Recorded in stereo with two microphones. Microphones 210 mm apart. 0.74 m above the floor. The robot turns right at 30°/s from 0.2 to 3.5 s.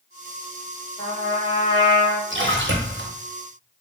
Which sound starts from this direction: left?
A trumpet, at 1.0 s.